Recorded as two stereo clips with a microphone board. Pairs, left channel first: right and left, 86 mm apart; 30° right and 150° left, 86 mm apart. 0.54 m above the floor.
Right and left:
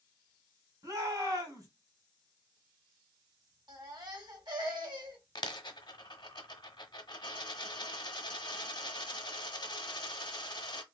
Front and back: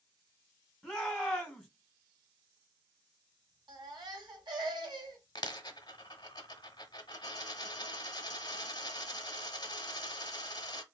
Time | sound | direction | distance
0.8 | a shout | 60° left | 2 m
3.7 | a baby crying | 120° left | 1.7 m
5.3 | a dropped coin | 65° right | 0.9 m